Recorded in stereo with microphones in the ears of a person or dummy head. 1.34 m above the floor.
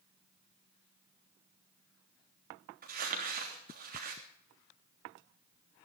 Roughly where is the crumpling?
Right.